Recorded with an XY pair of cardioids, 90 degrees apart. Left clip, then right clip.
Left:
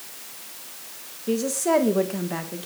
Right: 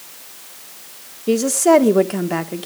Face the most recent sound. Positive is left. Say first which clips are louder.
# right 9 dB
turn(degrees=-55)